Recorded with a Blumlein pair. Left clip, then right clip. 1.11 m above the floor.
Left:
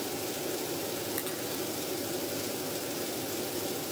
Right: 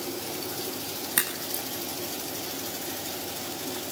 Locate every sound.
1.2 s a crack: 40° right, 8.5 m